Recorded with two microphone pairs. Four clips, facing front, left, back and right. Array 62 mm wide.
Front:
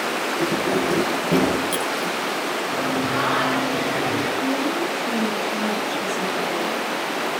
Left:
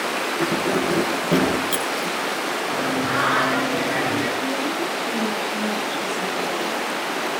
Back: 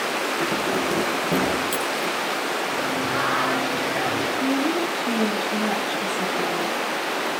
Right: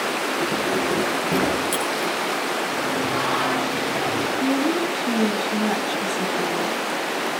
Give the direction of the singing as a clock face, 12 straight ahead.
9 o'clock.